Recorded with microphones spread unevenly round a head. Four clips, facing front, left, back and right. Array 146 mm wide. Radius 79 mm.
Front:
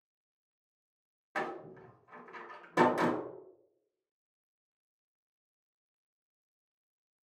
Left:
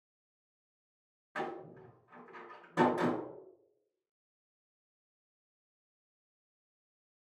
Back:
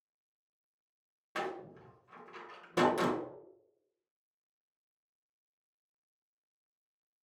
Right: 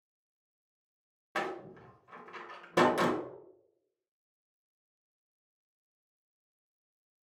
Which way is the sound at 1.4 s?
75° right.